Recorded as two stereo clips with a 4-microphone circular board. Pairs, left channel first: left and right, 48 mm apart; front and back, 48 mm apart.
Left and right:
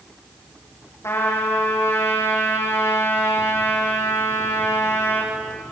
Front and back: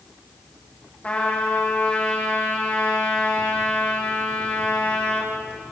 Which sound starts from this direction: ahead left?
A trumpet, at 1.0 s.